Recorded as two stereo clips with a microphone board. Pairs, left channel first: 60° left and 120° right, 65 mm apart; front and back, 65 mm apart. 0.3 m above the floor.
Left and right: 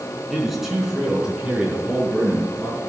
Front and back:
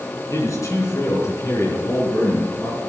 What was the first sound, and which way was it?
A man speaking, 30° right.